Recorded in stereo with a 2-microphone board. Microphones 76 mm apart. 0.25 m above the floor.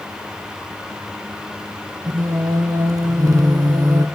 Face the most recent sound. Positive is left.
turn(degrees=-50)  # may be behind; listen again after turning